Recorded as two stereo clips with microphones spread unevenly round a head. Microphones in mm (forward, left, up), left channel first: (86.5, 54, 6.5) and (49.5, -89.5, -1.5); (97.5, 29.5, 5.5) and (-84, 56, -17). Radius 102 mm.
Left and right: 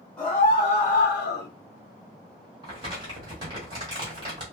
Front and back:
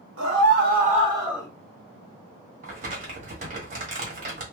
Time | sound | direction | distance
0.2 | a scream | 165° left | 1.4 m
2.6 | crumpling | 155° right | 1.5 m